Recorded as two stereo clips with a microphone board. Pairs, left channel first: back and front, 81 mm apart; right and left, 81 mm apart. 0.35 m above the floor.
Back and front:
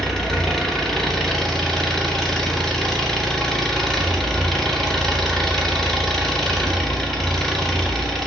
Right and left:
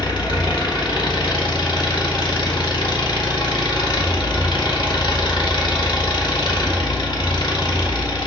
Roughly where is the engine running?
Right.